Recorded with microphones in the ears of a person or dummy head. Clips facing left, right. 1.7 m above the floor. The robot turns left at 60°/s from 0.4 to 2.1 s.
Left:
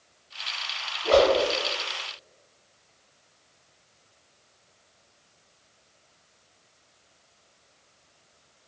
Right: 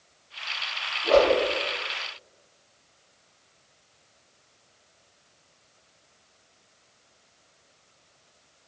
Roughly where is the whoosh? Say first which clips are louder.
Even; centre.